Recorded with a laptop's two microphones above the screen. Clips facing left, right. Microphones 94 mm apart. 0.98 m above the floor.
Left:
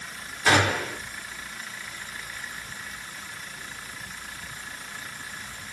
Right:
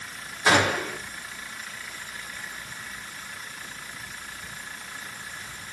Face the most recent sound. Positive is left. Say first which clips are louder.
# even
turn(degrees=-15)  # may be behind; listen again after turning